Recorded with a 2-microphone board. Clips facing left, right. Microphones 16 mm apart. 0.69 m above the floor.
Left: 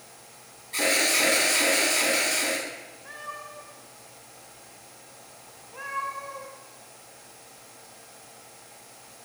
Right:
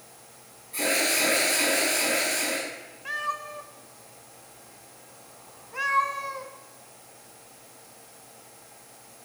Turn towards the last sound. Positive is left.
turn(degrees=-80)